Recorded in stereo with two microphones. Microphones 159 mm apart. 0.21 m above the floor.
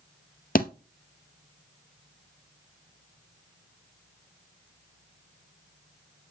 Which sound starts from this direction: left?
A thud, at 0.6 s.